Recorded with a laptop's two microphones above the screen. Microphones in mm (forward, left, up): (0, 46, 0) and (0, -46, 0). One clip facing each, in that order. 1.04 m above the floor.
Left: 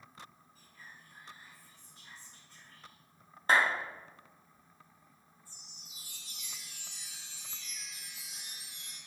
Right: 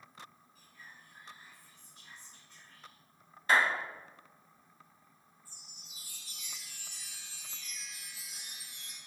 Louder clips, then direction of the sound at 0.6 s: Even; 35° left (ahead or behind).